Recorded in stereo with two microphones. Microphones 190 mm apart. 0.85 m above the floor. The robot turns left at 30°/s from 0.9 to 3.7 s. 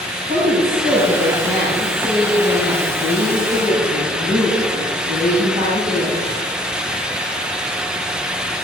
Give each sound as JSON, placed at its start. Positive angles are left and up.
{"t": 0.2, "sound": "a woman speaking", "azimuth_deg": -55, "distance_m": 6.0}